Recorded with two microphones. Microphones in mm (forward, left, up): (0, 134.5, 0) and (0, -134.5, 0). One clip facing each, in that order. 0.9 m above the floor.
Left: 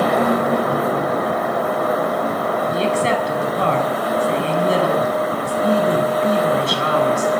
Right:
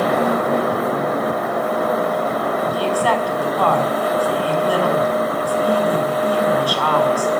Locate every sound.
2.7 s a woman speaking: 25° left (ahead or behind), 6.5 m